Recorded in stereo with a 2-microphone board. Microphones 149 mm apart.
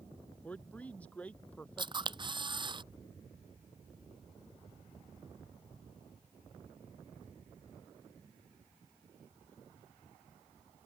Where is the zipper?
I don't hear a zipper.